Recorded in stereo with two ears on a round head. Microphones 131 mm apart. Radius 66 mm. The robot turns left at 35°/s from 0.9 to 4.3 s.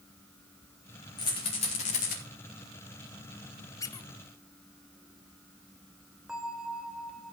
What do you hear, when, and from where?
1.2 s a rattle: 35° left (ahead or behind), 3.5 m; by 2.2 s 70° left (ahead or behind), 3.5 m
3.8 s a squeak: 25° left (ahead or behind), 0.7 m; by 4.1 s 30° left (ahead or behind), 0.7 m
6.3 s a bell: 5° right (ahead or behind), 1.4 m